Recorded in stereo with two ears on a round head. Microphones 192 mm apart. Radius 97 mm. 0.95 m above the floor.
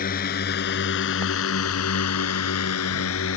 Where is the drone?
45° left (ahead or behind); by 3.4 s 65° left (ahead or behind).